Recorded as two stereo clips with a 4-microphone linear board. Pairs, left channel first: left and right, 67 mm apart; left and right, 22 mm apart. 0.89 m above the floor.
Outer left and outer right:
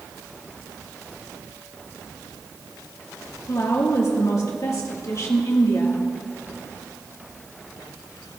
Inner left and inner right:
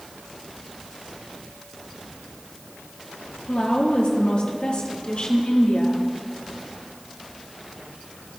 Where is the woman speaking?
50° left (ahead or behind), 1.9 m.